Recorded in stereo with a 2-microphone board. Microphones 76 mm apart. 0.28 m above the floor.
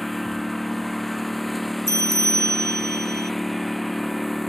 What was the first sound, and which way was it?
A lawn mower, centre (ahead or behind).